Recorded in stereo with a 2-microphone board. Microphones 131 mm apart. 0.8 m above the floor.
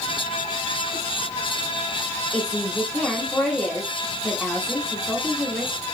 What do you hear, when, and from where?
2.3 s a woman speaking: 10° left (ahead or behind), 1.0 m